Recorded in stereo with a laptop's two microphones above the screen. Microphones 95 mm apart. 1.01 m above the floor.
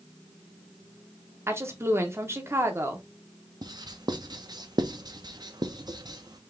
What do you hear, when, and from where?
1.5 s a woman speaking: 30° right (ahead or behind), 0.7 m
3.6 s writing: 45° right (ahead or behind), 0.5 m